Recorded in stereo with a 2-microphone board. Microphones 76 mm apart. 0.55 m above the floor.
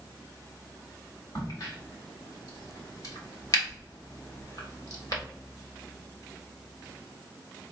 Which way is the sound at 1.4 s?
55° left (ahead or behind).